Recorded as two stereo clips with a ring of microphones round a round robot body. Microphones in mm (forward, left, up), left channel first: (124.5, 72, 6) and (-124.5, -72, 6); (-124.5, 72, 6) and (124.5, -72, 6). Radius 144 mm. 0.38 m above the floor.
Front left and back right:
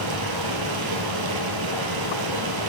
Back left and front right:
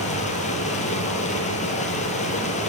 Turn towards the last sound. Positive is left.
turn(degrees=-140)